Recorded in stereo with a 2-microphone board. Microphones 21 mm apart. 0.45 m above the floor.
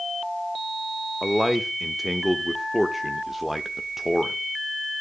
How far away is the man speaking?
About 1.0 m.